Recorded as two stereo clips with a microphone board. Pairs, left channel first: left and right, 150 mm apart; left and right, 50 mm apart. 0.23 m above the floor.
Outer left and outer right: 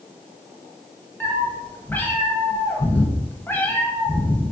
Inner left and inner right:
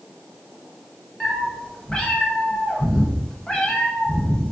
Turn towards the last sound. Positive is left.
turn(degrees=15)  # may be behind; listen again after turning